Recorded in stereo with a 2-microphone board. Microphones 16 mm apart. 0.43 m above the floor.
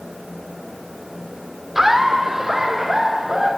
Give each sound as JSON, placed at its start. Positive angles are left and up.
{"t": 1.8, "sound": "laughter", "side_deg": -25, "distance_m": 0.7}